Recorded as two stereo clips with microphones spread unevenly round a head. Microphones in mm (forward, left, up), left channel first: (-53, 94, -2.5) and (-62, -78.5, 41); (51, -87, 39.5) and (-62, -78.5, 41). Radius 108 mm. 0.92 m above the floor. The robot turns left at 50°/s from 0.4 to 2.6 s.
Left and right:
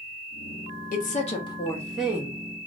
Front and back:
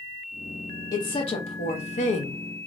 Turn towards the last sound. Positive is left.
turn(degrees=-30)